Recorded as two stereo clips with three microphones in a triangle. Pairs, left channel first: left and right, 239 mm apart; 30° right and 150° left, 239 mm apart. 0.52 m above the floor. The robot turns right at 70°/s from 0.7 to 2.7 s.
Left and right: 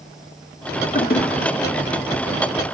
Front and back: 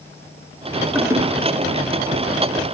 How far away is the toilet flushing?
About 0.5 m.